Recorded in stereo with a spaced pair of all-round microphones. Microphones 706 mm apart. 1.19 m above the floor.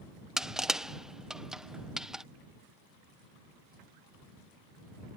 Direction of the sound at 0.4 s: Centre (ahead or behind).